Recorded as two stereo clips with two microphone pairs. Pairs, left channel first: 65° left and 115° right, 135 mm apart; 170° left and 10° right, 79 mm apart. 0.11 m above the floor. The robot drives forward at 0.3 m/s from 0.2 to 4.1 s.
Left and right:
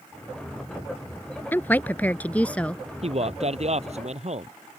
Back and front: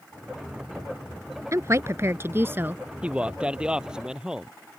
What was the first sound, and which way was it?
A woman speaking, straight ahead.